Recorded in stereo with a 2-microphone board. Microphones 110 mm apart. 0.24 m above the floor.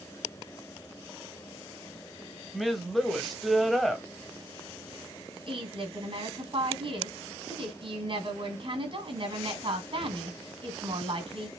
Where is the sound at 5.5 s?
55° right (ahead or behind), 2 m.